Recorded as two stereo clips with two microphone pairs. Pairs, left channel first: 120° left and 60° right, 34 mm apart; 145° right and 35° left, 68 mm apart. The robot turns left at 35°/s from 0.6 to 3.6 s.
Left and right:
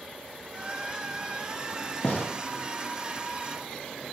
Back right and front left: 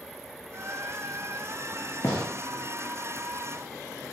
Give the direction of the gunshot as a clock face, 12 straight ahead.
6 o'clock.